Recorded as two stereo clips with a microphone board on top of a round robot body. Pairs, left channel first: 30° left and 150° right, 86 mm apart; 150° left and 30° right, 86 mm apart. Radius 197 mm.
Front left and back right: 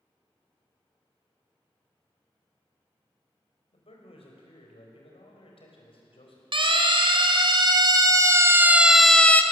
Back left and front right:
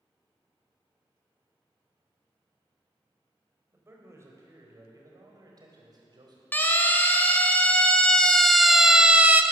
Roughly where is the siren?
Behind right.